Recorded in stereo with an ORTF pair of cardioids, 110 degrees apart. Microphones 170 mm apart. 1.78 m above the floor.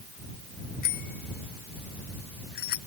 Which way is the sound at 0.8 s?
65° left.